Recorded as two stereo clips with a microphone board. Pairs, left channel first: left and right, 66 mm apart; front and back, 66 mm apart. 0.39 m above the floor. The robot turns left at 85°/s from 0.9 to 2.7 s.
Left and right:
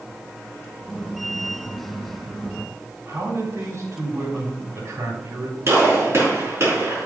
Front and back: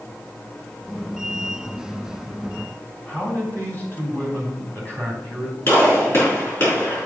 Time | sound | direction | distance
3.0 | a man speaking | 60° right | 3.5 m
5.7 | a gunshot | 50° right | 5 m